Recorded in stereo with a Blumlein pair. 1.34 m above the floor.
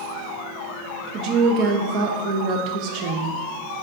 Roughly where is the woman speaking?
Ahead right.